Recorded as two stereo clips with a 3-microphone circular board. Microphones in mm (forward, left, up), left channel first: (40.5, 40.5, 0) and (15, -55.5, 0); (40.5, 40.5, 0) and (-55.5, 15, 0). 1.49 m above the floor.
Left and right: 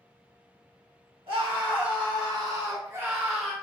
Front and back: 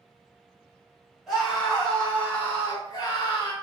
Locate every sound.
1.3 s a scream: 75° right, 2 m; by 3.5 s 15° right, 1.3 m